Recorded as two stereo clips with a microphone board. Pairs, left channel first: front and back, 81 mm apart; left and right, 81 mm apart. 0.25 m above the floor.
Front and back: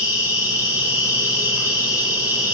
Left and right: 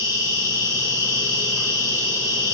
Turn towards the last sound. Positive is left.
turn(degrees=-135)